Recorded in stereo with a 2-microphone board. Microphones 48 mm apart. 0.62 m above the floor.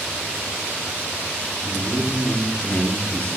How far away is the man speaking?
About 4.5 m.